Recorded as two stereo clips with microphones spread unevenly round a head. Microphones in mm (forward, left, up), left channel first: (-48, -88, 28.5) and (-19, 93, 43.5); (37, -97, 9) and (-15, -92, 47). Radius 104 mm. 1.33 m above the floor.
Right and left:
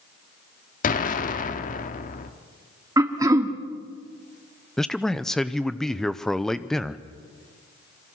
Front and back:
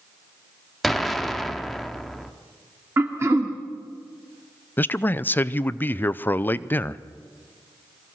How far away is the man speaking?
About 0.7 m.